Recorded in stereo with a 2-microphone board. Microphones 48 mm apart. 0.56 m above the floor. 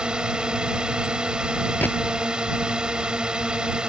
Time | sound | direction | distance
0.0 | a drone | 15° right (ahead or behind) | ?
1.8 | a gunshot | 40° left (ahead or behind) | ?